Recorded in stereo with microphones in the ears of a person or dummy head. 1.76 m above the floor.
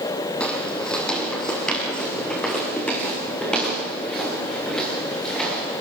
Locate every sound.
0.4 s footsteps: 10° left (ahead or behind), 3.5 m; by 5.8 s 5° left (ahead or behind), 9.5 m